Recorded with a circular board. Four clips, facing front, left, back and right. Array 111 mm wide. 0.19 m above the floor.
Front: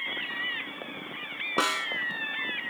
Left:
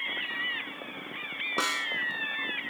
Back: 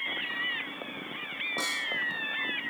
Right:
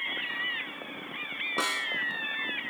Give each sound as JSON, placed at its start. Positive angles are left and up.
{"t": 1.6, "sound": "a snare drum", "azimuth_deg": 10, "distance_m": 0.7}